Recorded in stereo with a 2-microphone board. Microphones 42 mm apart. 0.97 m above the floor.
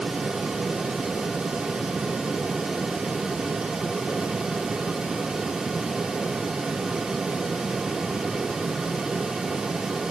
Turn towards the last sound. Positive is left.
No sound to turn to.